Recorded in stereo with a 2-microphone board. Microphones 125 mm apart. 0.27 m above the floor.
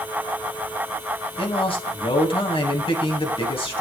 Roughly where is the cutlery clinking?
No cutlery clinking in this recording.